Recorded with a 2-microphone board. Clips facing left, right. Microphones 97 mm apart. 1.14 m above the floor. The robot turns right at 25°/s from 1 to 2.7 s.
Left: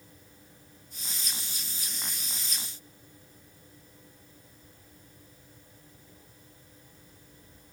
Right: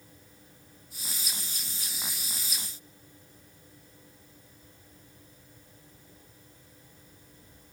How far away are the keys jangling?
I don't hear keys jangling.